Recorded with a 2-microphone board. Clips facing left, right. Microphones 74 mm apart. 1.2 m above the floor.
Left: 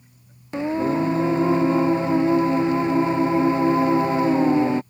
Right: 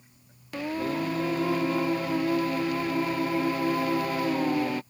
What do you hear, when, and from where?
0.5 s singing: 20° left (ahead or behind)